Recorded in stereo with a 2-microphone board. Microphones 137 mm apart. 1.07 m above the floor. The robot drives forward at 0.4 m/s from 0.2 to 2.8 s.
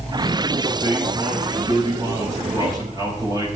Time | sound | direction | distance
0.7 | a man speaking | 30° right (ahead or behind) | 6 m